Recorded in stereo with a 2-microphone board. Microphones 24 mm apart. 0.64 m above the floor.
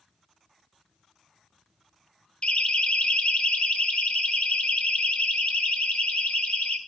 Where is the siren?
50° left (ahead or behind), 2.5 m; by 6.8 s 70° left (ahead or behind), 5.5 m.